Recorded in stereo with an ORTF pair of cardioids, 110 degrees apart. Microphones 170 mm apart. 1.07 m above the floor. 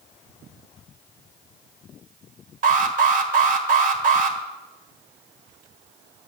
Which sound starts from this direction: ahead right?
An alarm, at 2.6 s.